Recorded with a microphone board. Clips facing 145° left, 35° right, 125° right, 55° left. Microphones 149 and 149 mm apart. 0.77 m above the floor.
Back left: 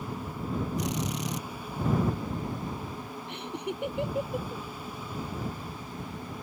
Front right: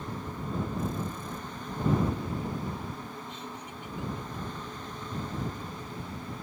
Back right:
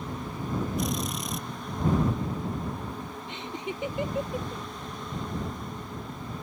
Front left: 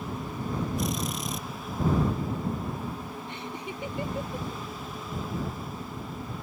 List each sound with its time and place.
0.8 s a drill: 145° left
3.3 s laughter: 165° left